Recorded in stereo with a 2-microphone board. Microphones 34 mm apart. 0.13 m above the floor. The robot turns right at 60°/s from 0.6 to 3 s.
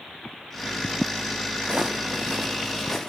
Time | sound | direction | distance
1.6 | footsteps | 25° right (ahead or behind) | 0.6 m